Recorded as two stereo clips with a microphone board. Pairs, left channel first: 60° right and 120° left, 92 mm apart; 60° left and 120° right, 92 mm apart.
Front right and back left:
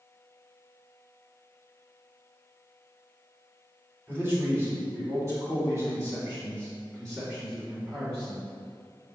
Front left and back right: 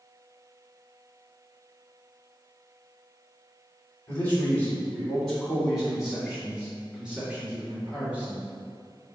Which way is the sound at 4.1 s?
100° left.